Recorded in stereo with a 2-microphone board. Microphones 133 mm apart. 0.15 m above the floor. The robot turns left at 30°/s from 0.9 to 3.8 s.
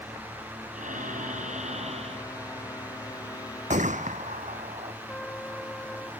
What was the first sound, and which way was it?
Breathing, 95° right.